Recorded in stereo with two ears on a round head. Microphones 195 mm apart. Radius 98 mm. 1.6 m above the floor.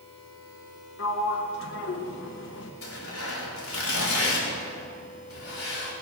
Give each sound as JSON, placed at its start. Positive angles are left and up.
{"t": 1.0, "sound": "a sliding door", "side_deg": 60, "distance_m": 1.2}
{"t": 2.8, "sound": "tearing paper", "side_deg": 70, "distance_m": 4.5}